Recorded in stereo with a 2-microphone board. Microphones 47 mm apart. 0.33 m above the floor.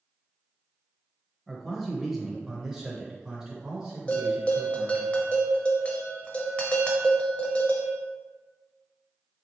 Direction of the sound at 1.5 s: Centre (ahead or behind).